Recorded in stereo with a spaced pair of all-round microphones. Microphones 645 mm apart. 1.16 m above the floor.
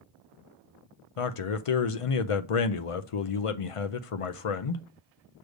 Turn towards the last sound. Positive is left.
turn(degrees=55)  # may be behind; listen again after turning